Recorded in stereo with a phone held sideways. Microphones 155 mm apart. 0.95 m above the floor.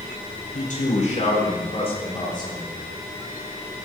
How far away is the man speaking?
About 4 m.